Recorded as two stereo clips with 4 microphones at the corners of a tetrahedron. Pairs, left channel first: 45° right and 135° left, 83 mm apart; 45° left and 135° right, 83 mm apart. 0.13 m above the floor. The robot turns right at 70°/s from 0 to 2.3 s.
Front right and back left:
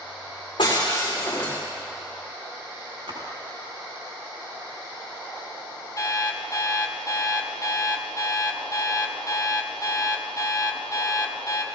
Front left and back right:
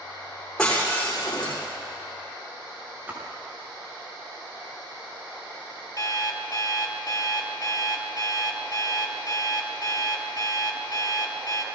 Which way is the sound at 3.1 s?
155° left.